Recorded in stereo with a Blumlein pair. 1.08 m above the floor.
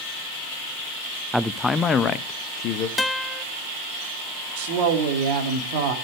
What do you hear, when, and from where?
1.3 s a man speaking: straight ahead, 0.6 m; by 2.9 s 40° left, 1.2 m
3.0 s a guitar: 10° left, 0.7 m
4.6 s a woman speaking: 50° right, 2.5 m